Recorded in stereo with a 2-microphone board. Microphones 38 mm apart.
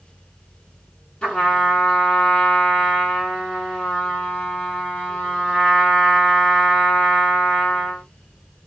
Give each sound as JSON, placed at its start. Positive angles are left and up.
{"t": 1.2, "sound": "a trumpet", "side_deg": 25, "distance_m": 2.0}